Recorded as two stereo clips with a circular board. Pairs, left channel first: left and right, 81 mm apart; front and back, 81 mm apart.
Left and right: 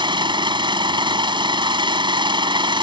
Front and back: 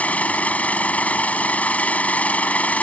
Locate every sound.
0.0 s an engine running: 75° right